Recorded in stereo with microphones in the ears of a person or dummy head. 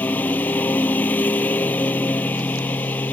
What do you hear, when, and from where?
0.0 s a lawn mower: 10° left (ahead or behind)